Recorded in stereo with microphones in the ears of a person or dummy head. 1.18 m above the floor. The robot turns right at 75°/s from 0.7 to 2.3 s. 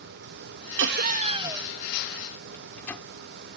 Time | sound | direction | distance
0.8 | laughter | 70° right | ?
2.5 | a microwave | 5° left (ahead or behind) | ?